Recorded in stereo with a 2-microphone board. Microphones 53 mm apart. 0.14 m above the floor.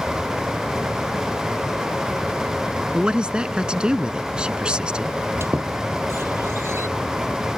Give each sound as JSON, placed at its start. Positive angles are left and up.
{"t": 2.9, "sound": "a man speaking", "side_deg": -20}
{"t": 5.4, "sound": "a squeak", "side_deg": -55}